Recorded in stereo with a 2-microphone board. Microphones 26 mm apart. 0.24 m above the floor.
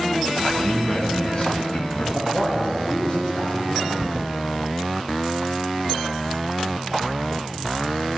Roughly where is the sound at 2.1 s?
Left.